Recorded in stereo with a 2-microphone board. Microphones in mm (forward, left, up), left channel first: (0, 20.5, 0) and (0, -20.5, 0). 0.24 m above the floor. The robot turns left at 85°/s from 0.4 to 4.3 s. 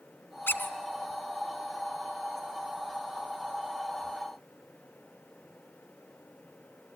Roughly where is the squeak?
Left.